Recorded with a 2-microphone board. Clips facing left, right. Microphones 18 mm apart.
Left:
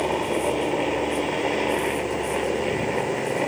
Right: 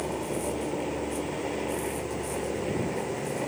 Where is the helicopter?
45° left (ahead or behind); by 3.5 s 35° left (ahead or behind).